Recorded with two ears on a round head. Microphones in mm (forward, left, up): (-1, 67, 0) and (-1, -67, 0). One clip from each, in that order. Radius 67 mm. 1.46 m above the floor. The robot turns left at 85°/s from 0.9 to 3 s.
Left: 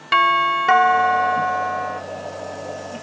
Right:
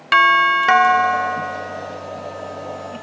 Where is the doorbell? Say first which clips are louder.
Right 3 dB; 145° right, 0.5 m; by 2.0 s 120° left, 0.5 m.